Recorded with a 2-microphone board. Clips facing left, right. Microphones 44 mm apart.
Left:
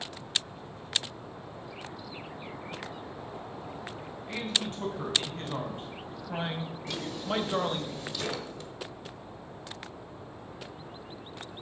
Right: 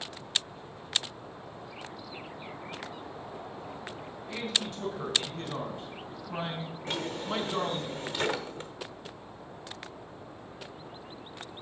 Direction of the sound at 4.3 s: 45° left (ahead or behind).